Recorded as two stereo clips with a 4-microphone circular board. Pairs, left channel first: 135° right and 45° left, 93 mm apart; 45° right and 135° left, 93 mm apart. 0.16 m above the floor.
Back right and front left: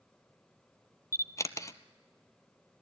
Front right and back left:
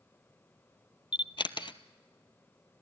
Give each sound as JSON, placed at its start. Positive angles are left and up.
{"t": 1.1, "sound": "a camera shutter", "azimuth_deg": -80, "distance_m": 0.7}